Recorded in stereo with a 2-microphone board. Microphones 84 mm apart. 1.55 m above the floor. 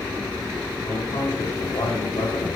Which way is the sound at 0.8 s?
80° left.